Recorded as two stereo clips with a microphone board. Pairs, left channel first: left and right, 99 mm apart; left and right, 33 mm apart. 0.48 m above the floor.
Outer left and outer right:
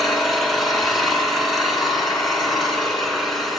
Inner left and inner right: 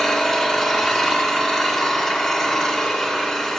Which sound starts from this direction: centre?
An engine running, at 0.0 s.